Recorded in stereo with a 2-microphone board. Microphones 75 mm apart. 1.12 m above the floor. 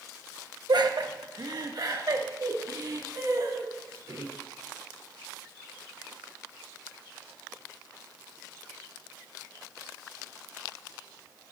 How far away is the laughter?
About 1.1 m.